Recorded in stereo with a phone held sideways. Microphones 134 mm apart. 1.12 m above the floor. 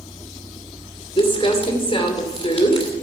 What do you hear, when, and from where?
1.2 s crumpling: 40° left (ahead or behind), 2.5 m